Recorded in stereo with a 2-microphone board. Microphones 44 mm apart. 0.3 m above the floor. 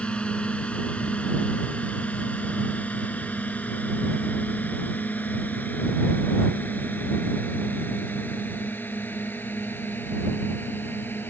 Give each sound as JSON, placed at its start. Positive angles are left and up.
{"t": 0.0, "sound": "a drone", "side_deg": 25}